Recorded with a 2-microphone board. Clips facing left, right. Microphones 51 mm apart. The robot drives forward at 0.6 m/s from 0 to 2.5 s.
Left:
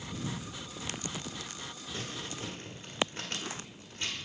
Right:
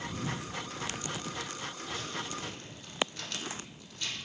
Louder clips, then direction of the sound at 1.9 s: Even; 35° left (ahead or behind).